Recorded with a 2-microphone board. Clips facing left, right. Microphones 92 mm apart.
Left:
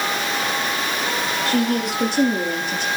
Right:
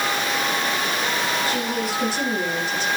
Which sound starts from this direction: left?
A woman speaking, at 1.4 s.